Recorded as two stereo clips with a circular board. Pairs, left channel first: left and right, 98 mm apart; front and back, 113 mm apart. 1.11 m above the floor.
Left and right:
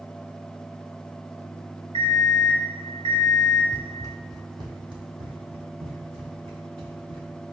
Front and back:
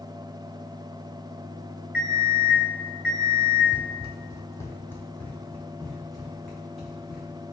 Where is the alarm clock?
100° right, 2.5 m.